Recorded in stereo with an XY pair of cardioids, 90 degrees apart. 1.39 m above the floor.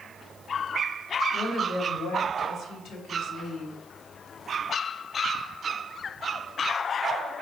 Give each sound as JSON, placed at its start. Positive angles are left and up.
{"t": 1.3, "sound": "a woman speaking", "azimuth_deg": 55, "distance_m": 2.5}